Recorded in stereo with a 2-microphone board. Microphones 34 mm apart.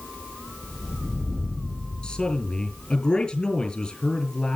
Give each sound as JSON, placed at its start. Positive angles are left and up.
{"t": 2.0, "sound": "a man speaking", "side_deg": 30, "distance_m": 3.5}